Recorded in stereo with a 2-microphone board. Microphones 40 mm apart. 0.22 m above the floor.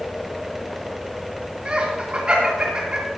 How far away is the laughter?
About 2.5 m.